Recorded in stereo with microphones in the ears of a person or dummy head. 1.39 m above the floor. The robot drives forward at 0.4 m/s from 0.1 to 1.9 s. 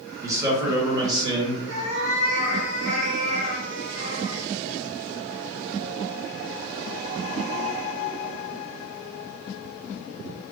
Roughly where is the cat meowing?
Right.